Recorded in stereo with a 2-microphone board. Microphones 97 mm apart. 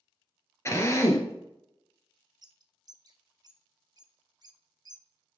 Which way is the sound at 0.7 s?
30° left (ahead or behind).